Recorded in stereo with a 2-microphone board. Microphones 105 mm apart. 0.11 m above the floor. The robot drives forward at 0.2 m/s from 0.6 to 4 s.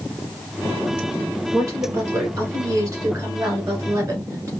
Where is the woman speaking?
30° right (ahead or behind), 1.8 m.